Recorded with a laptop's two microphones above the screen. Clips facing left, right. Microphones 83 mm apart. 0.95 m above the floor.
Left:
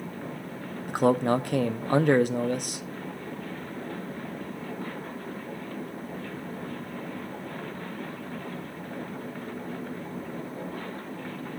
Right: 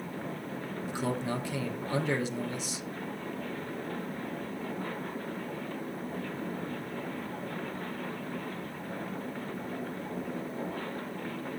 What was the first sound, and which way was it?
A man speaking, 55° left (ahead or behind).